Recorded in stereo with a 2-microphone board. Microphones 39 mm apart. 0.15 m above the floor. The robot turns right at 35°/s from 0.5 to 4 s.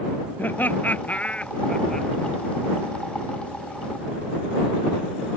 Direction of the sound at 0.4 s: 55° left (ahead or behind).